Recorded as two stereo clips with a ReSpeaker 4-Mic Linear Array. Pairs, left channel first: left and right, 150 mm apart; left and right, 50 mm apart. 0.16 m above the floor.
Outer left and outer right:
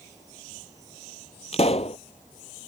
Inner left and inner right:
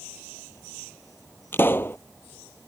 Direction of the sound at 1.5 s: 45° left (ahead or behind).